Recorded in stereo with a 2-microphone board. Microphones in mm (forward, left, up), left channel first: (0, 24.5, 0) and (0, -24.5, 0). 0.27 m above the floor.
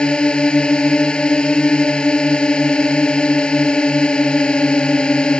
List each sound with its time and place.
0.0 s a drone: 20° left (ahead or behind)